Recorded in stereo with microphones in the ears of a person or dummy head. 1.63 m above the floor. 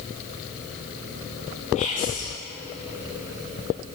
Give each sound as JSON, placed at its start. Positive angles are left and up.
{"t": 1.8, "sound": "whispering", "side_deg": 45, "distance_m": 3.0}